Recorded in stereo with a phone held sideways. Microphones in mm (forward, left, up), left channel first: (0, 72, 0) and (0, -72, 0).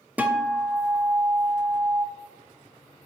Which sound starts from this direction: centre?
A guitar, at 0.2 s.